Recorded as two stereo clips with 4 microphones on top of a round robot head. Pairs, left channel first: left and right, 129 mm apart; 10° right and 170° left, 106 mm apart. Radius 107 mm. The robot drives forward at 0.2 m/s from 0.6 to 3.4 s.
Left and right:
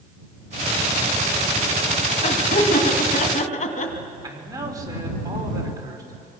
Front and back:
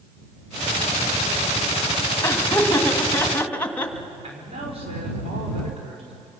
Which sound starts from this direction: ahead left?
Laughter, at 2.2 s.